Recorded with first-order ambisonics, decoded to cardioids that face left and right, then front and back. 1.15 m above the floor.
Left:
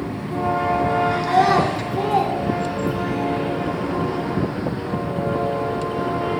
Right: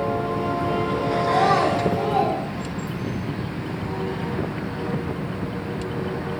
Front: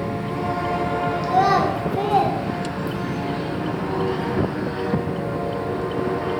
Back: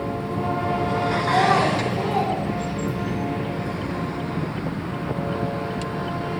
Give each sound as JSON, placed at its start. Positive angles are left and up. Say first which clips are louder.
{"t": 1.2, "sound": "a child speaking", "louder": "left 1 dB, front 1 dB", "azimuth_deg": 70, "distance_m": 0.5}